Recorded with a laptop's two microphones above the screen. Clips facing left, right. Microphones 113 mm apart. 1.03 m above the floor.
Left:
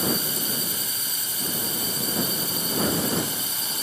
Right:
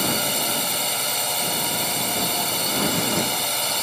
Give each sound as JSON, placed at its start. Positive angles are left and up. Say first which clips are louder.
{"t": 0.0, "sound": "a drone", "louder": "right 3 dB", "side_deg": -75}